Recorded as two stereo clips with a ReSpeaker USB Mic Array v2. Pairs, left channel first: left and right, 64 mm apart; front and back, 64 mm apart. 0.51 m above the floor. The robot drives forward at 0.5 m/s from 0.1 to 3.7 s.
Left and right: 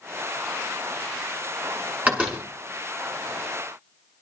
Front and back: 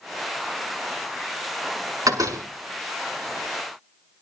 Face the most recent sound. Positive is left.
turn(degrees=-160)